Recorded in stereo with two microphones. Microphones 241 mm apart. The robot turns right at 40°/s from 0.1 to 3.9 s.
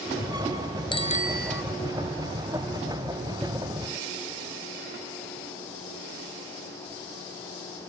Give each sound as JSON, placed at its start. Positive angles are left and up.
{"t": 0.9, "sound": "a bicycle bell", "side_deg": 20}